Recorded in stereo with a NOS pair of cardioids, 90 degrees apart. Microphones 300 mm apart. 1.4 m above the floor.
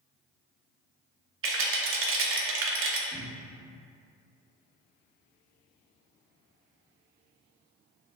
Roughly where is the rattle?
Ahead right.